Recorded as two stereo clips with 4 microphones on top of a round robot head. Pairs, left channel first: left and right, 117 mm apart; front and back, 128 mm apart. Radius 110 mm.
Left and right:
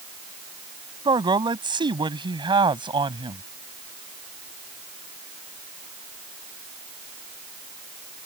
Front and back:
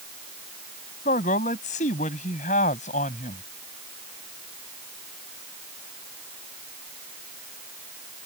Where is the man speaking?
40° right.